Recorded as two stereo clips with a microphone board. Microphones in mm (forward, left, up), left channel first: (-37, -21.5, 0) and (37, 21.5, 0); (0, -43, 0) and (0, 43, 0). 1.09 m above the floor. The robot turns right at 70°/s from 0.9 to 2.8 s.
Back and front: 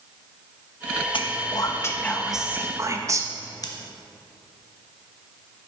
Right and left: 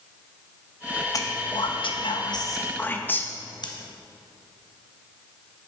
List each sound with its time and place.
1.1 s whispering: 140° right, 1.0 m; by 3.3 s 25° right, 1.0 m
3.6 s scissors: 110° right, 0.9 m